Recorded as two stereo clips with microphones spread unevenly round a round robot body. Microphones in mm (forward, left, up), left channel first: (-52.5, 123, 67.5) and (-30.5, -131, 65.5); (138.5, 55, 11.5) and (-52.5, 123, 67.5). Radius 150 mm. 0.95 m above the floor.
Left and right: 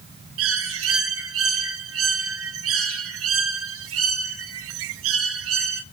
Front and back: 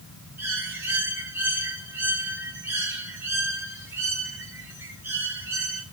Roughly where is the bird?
Behind right.